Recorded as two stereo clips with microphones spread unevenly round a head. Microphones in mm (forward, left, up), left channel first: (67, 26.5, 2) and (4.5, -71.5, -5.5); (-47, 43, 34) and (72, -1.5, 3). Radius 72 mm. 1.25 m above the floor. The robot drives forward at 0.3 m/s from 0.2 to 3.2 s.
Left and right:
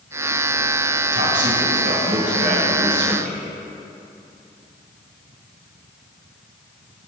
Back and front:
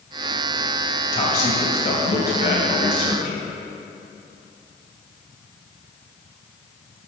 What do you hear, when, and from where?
1.1 s a man speaking: 150° right, 2 m; by 3.4 s 155° right, 3 m